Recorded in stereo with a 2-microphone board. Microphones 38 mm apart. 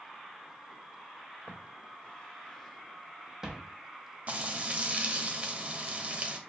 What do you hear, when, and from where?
1.5 s footsteps: 45° left (ahead or behind), 1.0 m; by 3.7 s 25° right (ahead or behind), 0.9 m
4.3 s frying: 40° right (ahead or behind), 0.5 m